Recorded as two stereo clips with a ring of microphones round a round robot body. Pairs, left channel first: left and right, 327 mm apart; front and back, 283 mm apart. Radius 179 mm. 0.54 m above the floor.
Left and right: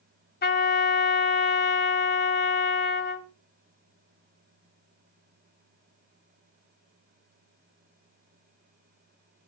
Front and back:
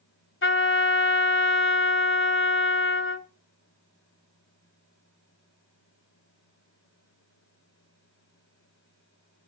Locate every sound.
0.4 s a trumpet: 35° left, 2 m